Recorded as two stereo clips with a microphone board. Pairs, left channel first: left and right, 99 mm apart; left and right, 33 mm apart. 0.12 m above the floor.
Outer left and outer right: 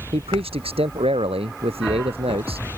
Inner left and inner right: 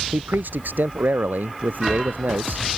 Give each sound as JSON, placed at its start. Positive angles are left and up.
{"t": 0.1, "sound": "a man speaking", "side_deg": -75}